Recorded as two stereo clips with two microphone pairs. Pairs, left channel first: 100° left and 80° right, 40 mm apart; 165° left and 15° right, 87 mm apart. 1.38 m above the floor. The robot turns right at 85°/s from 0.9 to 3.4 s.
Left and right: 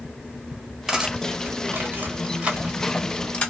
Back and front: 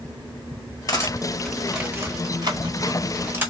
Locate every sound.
0.9 s cutlery clinking: 165° right, 1.0 m; by 3.5 s 50° left, 1.0 m